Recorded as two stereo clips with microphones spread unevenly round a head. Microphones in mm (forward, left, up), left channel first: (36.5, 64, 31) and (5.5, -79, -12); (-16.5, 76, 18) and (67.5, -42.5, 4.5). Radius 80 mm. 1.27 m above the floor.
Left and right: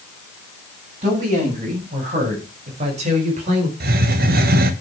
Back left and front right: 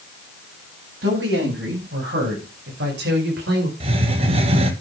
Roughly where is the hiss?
Right.